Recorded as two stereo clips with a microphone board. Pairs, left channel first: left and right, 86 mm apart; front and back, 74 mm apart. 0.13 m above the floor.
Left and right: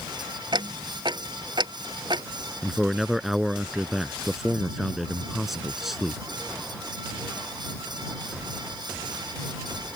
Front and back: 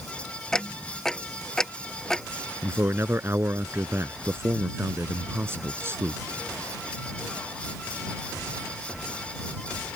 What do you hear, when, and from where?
0.5 s ticking: 85° right
2.6 s a man speaking: 175° right